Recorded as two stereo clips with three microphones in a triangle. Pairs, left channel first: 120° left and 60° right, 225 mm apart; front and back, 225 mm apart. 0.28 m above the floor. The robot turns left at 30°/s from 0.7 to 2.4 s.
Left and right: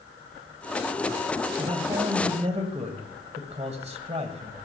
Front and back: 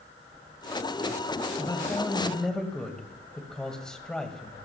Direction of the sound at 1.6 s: 60° right.